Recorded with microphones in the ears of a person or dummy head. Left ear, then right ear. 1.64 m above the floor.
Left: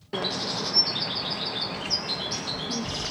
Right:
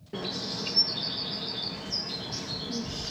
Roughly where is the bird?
Left.